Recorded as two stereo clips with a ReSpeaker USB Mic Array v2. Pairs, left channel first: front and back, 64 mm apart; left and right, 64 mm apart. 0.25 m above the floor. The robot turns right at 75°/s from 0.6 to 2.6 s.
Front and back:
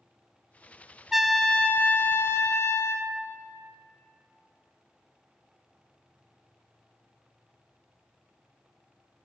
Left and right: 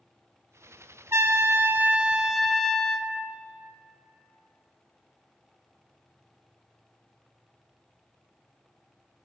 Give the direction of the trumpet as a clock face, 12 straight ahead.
3 o'clock.